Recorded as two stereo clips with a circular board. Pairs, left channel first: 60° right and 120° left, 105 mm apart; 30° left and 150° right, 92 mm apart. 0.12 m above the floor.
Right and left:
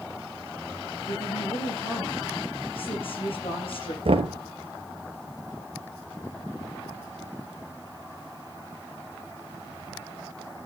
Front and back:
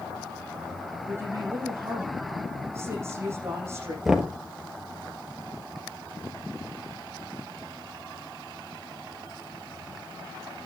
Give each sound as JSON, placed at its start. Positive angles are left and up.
{"t": 1.1, "sound": "a woman speaking", "azimuth_deg": -90, "distance_m": 7.5}
{"t": 4.0, "sound": "knocking", "azimuth_deg": 125, "distance_m": 1.6}